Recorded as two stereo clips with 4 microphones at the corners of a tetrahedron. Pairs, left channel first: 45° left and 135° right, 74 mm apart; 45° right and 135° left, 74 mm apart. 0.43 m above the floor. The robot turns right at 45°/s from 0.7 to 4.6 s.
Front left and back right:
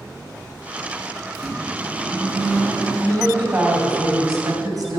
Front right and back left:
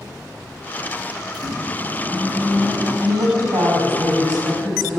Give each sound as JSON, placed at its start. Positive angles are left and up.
{"t": 1.3, "sound": "a microwave", "azimuth_deg": 105, "distance_m": 4.0}
{"t": 3.0, "sound": "a woman speaking", "azimuth_deg": 155, "distance_m": 3.0}